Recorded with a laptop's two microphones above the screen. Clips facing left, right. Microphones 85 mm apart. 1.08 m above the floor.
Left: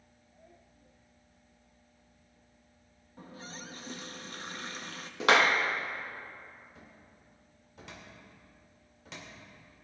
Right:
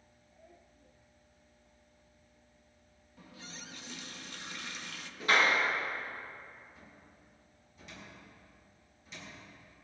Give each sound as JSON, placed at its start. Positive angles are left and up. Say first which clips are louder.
{"t": 3.2, "sound": "a running tap", "louder": "left 5 dB", "side_deg": 35, "distance_m": 0.5}
{"t": 5.2, "sound": "a clap", "louder": "left 4 dB", "side_deg": 85, "distance_m": 0.9}
{"t": 6.8, "sound": "a cupboard door", "louder": "left 1 dB", "side_deg": 80, "distance_m": 2.5}